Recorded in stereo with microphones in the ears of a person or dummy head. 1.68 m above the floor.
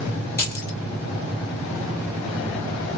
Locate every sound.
0.4 s keys jangling: 15° left (ahead or behind), 1.5 m